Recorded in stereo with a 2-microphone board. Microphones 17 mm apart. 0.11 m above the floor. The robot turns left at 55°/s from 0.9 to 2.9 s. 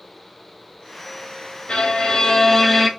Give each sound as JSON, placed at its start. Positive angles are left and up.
{"t": 1.7, "sound": "a violin", "azimuth_deg": 65, "distance_m": 0.6}